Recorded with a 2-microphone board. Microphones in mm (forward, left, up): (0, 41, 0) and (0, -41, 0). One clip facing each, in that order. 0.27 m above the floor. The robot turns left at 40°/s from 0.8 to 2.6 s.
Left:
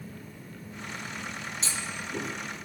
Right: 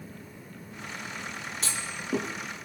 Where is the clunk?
45° right (ahead or behind), 6 m; by 2.3 s 70° right (ahead or behind), 6 m.